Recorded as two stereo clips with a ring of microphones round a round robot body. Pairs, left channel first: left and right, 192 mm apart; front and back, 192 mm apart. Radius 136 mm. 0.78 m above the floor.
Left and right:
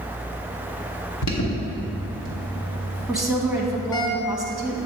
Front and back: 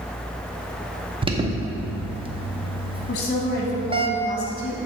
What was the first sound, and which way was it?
An alarm, 115° left.